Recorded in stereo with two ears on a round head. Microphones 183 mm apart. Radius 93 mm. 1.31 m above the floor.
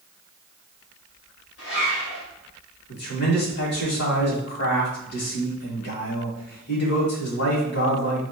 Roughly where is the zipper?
Left.